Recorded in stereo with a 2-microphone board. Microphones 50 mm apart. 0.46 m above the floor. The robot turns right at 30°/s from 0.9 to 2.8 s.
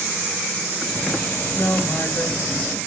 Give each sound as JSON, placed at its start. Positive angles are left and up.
{"t": 1.5, "sound": "a woman speaking", "side_deg": 75, "distance_m": 6.0}